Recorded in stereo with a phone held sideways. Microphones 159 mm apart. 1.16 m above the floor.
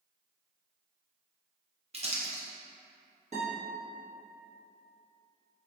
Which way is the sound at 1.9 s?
40° right (ahead or behind).